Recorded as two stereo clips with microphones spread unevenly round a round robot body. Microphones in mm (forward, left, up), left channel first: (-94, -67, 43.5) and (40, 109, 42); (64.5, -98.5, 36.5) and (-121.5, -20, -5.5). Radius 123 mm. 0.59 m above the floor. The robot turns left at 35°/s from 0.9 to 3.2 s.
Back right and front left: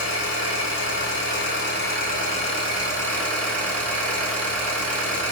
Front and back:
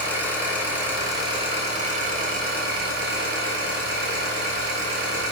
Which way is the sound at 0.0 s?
130° right.